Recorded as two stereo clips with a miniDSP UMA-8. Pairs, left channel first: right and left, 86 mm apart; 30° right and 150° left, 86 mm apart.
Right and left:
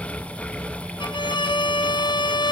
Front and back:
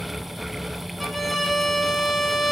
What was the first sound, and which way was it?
A violin, 120° right.